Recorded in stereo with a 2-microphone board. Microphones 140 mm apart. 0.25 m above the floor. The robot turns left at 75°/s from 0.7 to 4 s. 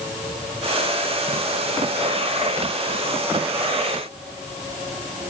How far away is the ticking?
I don't hear ticking.